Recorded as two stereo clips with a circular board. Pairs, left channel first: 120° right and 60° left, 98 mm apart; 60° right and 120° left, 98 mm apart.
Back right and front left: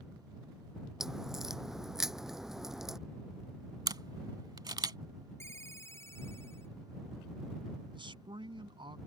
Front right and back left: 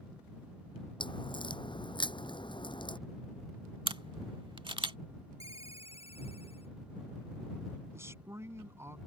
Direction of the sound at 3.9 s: 100° left.